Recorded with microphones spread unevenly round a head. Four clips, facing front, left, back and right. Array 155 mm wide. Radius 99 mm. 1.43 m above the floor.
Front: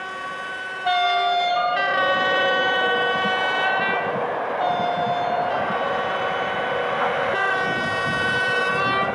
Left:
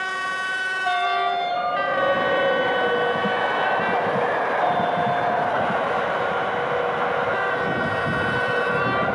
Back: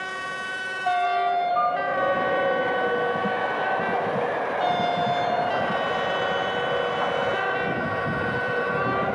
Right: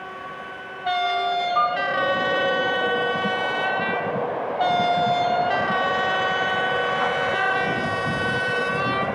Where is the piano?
145° right, 0.7 m.